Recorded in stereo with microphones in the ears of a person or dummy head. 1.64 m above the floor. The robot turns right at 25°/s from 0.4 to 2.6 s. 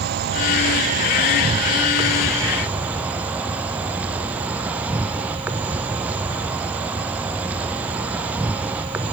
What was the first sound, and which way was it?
An insect, 65° right.